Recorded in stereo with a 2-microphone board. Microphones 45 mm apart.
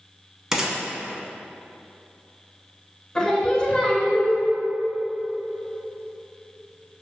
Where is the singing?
15° left (ahead or behind), 0.7 m.